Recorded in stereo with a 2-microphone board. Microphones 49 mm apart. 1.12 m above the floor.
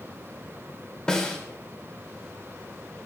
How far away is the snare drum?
About 3 m.